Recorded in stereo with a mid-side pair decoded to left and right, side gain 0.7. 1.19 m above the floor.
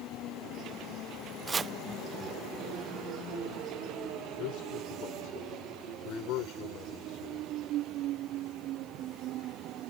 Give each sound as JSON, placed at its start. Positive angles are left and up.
{"t": 1.5, "sound": "chopping", "azimuth_deg": -25}
{"t": 4.4, "sound": "a man speaking", "azimuth_deg": 60}